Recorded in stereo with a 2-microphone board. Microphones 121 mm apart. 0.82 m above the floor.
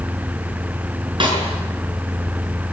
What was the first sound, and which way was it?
A snare drum, 45° right (ahead or behind).